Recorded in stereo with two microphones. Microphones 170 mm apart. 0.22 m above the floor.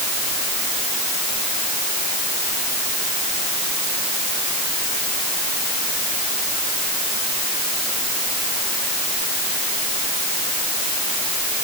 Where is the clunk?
I don't hear a clunk.